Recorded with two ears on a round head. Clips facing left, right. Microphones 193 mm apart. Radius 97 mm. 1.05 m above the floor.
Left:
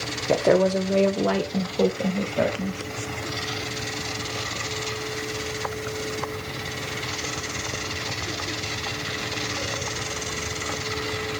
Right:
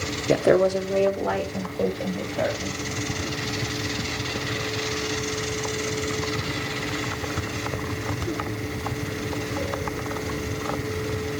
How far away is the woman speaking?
About 0.9 m.